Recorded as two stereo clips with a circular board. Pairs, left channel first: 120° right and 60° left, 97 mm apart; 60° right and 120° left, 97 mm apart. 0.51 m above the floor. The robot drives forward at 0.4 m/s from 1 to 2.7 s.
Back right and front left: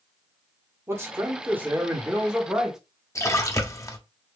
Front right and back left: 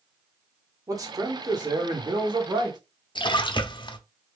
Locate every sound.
0.9 s a man speaking: 110° left, 1.1 m; by 2.8 s 145° left, 1.4 m
3.1 s a splash: 70° right, 0.6 m